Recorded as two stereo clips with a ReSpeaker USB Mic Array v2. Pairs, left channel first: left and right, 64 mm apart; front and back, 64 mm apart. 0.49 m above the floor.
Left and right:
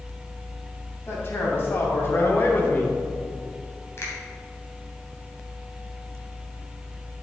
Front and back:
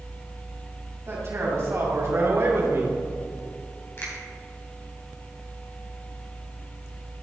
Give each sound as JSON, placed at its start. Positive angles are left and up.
{"t": 1.1, "sound": "a man speaking", "azimuth_deg": 135, "distance_m": 3.5}
{"t": 4.0, "sound": "a finger snap", "azimuth_deg": 45, "distance_m": 2.5}